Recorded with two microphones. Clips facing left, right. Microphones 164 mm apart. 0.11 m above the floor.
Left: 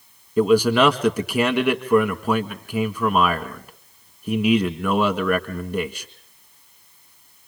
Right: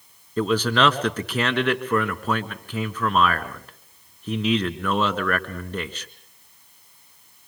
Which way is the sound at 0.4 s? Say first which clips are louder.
Left 5 dB; 10° left (ahead or behind).